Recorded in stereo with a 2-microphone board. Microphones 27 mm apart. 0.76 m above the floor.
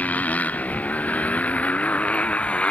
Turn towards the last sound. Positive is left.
turn(degrees=50)  # may be behind; listen again after turning